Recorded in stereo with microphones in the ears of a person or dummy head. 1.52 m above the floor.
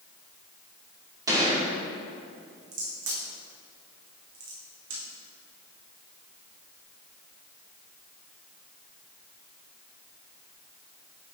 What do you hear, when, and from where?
1.3 s a gunshot: 20° right (ahead or behind), 3 m
2.7 s a crack: 80° right, 3.5 m